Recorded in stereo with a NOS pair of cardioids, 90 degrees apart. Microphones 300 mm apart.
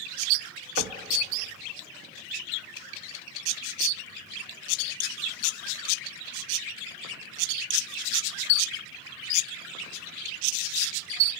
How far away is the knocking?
About 1.3 m.